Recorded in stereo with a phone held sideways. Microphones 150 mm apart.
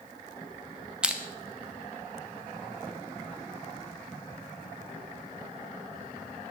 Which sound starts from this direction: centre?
Crushing, at 1.0 s.